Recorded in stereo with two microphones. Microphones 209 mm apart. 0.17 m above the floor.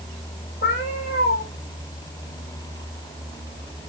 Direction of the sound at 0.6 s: 80° left.